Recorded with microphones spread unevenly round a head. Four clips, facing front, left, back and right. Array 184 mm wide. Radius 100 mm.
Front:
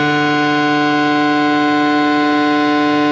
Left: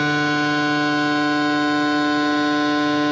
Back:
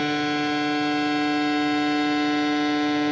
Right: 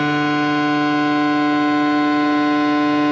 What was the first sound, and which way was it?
A machine running, 10° right.